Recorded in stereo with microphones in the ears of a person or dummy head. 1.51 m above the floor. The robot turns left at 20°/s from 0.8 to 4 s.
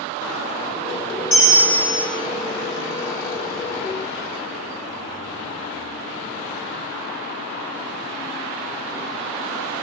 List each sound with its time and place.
1.3 s a bell: 50° left (ahead or behind), 0.9 m